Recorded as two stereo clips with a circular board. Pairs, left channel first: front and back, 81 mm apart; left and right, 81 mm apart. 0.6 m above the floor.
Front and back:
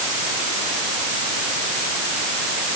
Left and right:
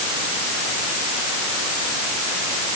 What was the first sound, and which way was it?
Only background noise.